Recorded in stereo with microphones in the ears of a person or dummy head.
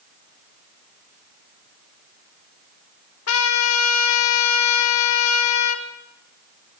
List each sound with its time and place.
3.3 s a trumpet: 80° left, 2 m